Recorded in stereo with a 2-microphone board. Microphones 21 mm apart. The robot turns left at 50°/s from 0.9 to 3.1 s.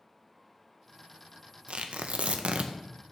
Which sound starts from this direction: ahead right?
Tearing paper, at 1.7 s.